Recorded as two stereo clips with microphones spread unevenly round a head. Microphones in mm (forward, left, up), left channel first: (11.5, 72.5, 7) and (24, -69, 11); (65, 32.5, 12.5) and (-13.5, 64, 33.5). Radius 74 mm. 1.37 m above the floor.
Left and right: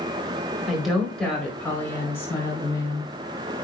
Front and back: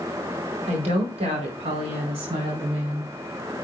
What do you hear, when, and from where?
0.7 s a woman speaking: 175° right, 4 m; by 3.1 s 160° left, 5 m